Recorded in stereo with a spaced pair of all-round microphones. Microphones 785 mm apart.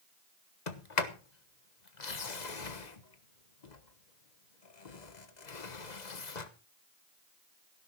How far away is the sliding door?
About 1.3 m.